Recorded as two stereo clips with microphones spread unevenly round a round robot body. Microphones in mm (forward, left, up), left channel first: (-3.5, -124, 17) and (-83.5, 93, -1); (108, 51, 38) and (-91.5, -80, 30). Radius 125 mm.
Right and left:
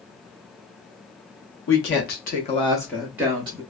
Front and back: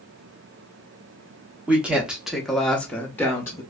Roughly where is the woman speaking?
Ahead right.